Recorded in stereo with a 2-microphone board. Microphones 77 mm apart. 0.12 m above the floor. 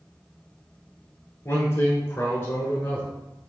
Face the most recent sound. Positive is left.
turn(degrees=25)  # may be behind; listen again after turning